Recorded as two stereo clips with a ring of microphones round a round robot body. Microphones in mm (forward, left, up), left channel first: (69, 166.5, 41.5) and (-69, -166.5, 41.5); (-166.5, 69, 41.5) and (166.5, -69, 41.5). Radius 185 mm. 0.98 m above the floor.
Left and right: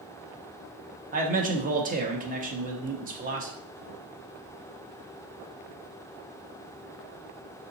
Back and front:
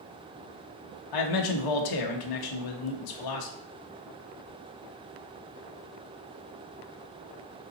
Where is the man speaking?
Straight behind, 1.1 m.